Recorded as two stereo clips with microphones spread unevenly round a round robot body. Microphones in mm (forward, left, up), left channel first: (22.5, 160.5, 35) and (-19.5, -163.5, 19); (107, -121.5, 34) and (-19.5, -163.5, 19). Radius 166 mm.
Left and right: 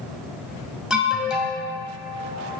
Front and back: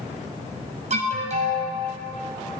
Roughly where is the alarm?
Behind.